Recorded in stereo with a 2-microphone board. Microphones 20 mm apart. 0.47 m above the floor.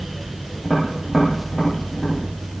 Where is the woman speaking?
I don't hear a woman speaking.